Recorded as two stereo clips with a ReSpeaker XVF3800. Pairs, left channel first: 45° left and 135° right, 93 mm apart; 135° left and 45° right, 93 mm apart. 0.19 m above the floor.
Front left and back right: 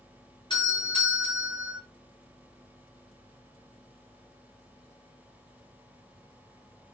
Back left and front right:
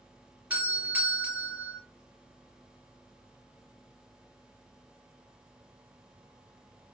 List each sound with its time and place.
0.5 s a doorbell: 25° left, 3.5 m